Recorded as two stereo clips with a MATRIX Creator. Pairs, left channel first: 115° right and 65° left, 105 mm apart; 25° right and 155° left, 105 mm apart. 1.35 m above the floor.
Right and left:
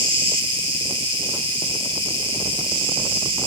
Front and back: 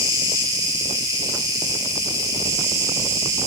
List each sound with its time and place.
0.0 s an insect: 100° left, 2.5 m